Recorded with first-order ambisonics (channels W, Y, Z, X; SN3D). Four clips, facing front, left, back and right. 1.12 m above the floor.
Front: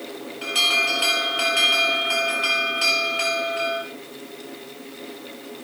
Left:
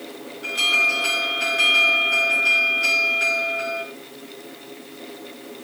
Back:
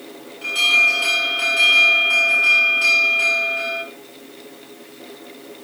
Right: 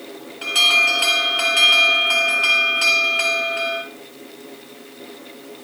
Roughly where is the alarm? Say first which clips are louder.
Right 4 dB, back 5 dB; right.